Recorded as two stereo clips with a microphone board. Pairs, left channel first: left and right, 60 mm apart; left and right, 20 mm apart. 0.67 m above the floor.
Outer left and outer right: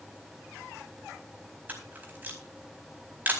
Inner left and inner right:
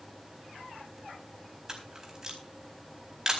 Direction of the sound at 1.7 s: 30° right (ahead or behind).